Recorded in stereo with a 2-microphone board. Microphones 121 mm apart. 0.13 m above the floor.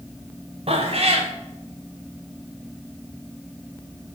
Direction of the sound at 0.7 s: 55° right (ahead or behind).